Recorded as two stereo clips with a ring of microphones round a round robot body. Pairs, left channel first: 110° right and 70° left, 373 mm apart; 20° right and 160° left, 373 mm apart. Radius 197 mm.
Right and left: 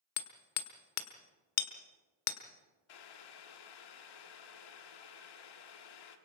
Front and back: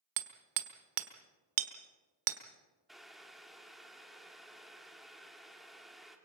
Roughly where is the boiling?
Behind right.